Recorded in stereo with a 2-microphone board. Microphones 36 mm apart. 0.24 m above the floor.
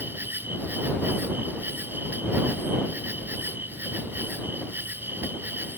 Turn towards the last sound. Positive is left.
turn(degrees=-75)  # may be behind; listen again after turning